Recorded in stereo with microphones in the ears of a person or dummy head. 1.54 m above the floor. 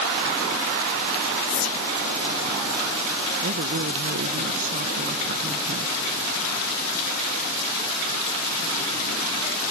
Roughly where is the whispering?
Left.